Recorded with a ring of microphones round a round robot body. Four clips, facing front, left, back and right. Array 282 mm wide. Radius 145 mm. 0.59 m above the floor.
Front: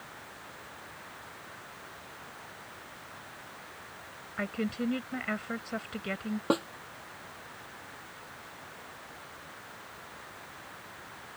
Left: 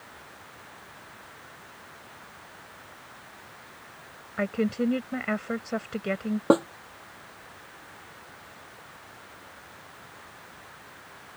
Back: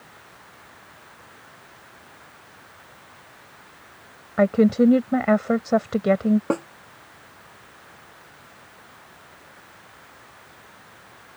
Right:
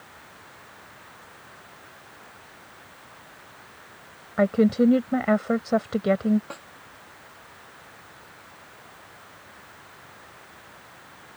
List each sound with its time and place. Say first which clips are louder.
4.4 s a woman speaking: right 8 dB, back 16 dB; 155° right
6.5 s a snare drum: left 21 dB, back 4 dB; 100° left